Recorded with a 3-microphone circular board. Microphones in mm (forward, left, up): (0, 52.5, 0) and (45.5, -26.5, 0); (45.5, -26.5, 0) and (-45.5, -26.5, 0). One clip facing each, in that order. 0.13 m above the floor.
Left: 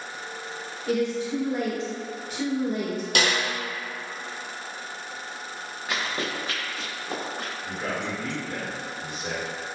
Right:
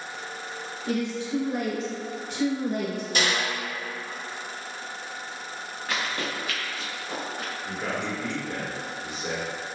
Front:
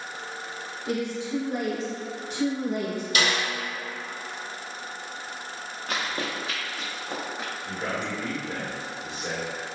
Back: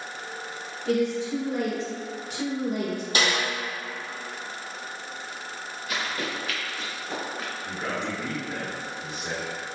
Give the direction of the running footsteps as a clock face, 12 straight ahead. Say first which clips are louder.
Left 1 dB, front 1 dB; 11 o'clock.